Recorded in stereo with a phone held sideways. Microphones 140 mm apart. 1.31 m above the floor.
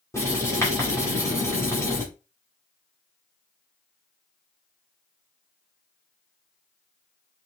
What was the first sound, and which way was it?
Writing, 20° left (ahead or behind).